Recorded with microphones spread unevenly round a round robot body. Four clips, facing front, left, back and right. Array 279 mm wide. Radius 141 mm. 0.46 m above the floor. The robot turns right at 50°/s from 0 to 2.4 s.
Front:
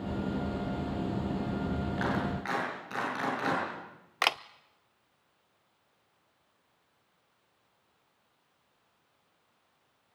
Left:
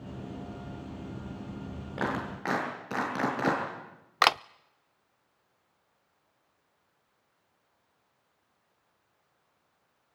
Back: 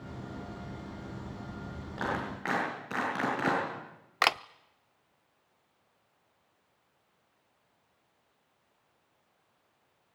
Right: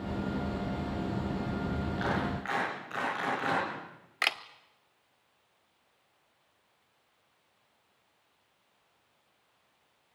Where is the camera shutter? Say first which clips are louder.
Left 10 dB, back 2 dB; 100° left, 0.6 m.